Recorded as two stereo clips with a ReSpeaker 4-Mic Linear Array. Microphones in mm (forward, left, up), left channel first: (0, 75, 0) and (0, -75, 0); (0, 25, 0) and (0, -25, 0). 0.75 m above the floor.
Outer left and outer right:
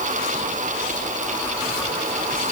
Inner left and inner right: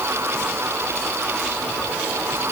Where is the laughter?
I don't hear laughter.